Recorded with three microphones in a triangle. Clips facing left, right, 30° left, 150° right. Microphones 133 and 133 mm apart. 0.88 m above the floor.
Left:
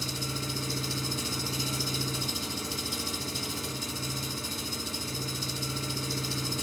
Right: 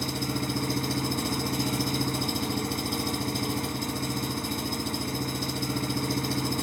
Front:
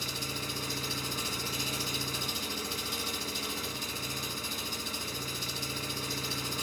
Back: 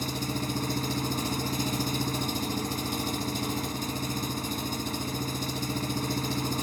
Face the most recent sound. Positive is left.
turn(degrees=-110)